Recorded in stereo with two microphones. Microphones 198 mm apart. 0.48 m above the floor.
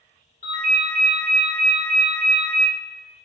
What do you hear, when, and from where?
0.4 s a ringtone: 35° left (ahead or behind), 1.1 m